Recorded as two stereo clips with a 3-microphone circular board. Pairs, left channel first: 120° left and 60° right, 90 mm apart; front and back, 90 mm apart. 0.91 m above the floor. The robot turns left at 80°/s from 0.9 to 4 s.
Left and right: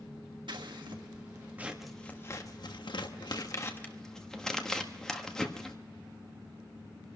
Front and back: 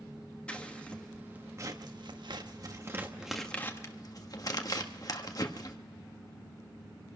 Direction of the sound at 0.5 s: 75° right.